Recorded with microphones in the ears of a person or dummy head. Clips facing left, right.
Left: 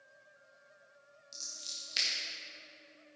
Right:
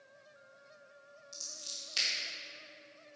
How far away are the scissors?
About 1.9 m.